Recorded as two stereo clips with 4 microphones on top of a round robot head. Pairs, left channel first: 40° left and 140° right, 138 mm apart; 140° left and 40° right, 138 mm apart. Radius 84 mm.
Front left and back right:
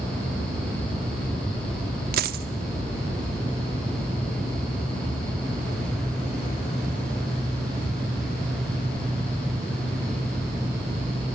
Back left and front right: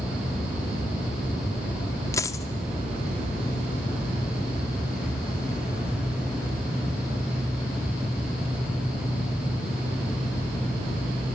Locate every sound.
2.1 s a dropped coin: 150° right, 0.6 m